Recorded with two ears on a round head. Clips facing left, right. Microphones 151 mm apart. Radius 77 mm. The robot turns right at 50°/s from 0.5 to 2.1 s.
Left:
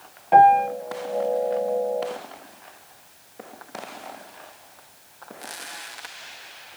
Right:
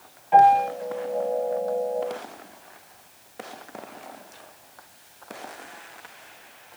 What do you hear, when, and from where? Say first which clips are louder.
0.3 s a piano: left 1 dB; 60° left (ahead or behind), 3 m; by 0.7 s 50° left (ahead or behind), 3 m